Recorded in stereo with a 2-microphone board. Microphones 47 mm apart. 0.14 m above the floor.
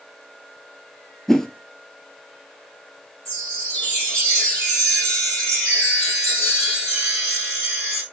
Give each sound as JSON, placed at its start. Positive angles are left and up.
{"t": 1.3, "sound": "a whoosh", "side_deg": 10, "distance_m": 0.6}
{"t": 3.2, "sound": "a chime", "side_deg": 30, "distance_m": 3.5}